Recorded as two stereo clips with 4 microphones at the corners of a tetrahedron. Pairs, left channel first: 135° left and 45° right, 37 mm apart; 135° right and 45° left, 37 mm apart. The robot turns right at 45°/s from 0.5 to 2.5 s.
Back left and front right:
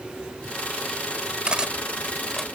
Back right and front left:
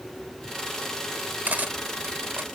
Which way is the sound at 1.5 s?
10° left.